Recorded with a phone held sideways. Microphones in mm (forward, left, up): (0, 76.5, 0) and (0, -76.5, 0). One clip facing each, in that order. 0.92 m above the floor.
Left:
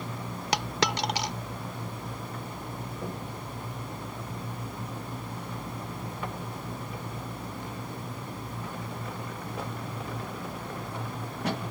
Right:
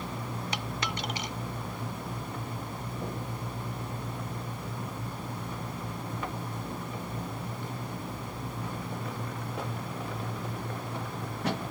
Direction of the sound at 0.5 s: 65° left (ahead or behind).